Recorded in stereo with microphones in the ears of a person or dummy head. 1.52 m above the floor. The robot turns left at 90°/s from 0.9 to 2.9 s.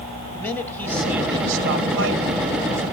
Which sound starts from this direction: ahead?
A man speaking, at 0.3 s.